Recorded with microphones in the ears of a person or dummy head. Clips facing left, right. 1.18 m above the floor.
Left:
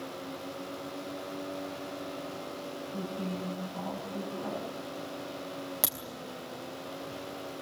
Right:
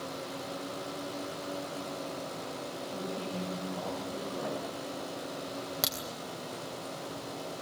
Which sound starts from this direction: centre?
A crack, at 5.8 s.